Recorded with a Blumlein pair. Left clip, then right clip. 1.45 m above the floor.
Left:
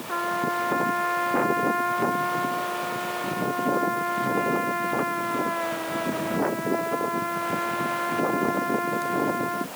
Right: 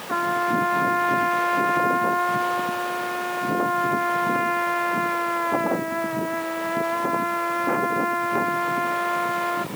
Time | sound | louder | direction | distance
0.1 | a trumpet | right 4 dB | 15° right | ?